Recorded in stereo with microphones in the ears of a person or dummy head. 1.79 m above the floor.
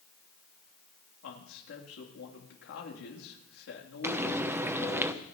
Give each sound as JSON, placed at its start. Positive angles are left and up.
{"t": 1.2, "sound": "a man speaking", "side_deg": 75, "distance_m": 3.5}
{"t": 4.0, "sound": "frying", "side_deg": -15, "distance_m": 0.8}